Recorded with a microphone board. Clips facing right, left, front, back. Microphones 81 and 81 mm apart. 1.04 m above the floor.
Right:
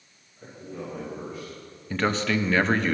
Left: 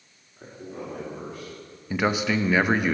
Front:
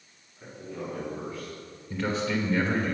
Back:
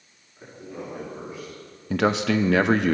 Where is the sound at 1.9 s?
170° left, 0.7 m.